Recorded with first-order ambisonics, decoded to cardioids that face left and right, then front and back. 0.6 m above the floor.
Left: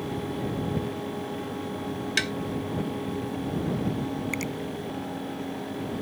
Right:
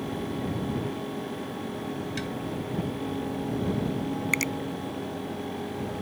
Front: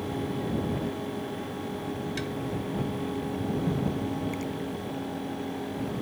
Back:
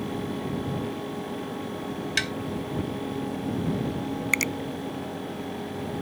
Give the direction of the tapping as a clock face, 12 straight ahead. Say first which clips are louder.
Left 13 dB, back 12 dB; 7 o'clock.